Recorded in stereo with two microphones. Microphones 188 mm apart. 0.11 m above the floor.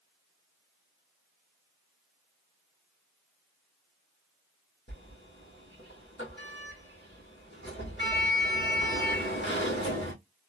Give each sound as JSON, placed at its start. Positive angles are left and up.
{"t": 4.9, "sound": "a sliding door", "side_deg": 75, "distance_m": 1.9}